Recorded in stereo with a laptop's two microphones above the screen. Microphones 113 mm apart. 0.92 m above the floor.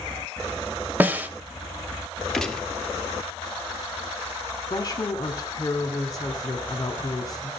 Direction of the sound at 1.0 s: 15° right (ahead or behind).